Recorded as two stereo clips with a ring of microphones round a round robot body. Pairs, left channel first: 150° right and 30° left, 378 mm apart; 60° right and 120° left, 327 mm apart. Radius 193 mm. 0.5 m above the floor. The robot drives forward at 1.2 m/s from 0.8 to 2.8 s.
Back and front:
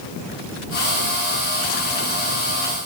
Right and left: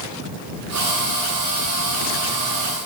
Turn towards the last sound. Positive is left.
No sound to turn to.